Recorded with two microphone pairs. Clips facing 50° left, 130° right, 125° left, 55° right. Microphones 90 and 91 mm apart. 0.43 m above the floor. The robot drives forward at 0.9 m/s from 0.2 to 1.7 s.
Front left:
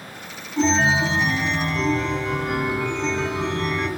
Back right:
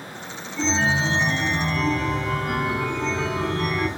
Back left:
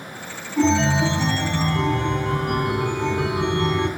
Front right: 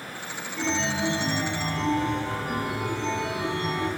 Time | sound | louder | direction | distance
0.6 | a chime | front left 4 dB, back left 9 dB | 95° left | 0.7 m